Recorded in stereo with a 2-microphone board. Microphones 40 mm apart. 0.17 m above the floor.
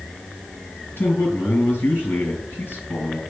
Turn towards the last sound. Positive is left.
turn(degrees=65)  # may be behind; listen again after turning